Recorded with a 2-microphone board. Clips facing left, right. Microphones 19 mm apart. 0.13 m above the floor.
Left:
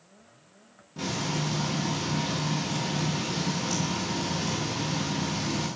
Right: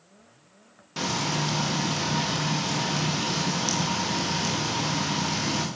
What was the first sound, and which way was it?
Frying, 75° right (ahead or behind).